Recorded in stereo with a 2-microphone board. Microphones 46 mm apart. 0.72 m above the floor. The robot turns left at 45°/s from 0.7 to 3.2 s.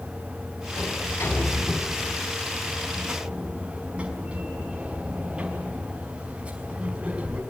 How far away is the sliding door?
About 5.5 m.